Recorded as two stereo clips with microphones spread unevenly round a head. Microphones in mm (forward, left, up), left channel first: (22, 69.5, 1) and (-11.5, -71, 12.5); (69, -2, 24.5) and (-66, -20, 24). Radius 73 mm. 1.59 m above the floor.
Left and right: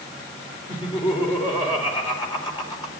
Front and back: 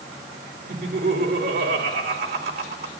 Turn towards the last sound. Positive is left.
turn(degrees=140)